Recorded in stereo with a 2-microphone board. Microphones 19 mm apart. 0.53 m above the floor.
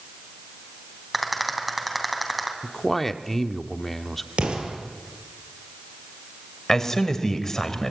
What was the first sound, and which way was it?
A rattle, centre (ahead or behind).